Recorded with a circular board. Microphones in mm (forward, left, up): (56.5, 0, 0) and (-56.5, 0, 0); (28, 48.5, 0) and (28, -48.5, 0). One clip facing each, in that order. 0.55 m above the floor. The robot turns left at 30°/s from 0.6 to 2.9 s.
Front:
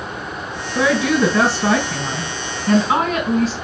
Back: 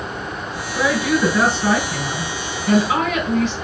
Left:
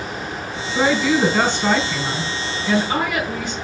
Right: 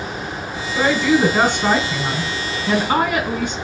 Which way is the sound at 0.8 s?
10° left.